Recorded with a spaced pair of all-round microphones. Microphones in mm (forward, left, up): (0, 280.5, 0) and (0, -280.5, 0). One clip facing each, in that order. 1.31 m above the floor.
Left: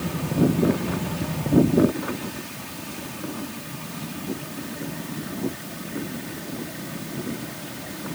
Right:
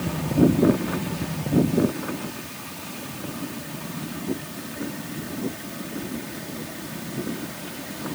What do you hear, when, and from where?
Only background noise.